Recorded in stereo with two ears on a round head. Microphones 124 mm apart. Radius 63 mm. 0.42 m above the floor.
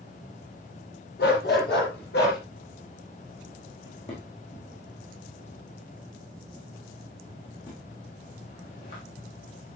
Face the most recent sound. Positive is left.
turn(degrees=45)  # may be behind; listen again after turning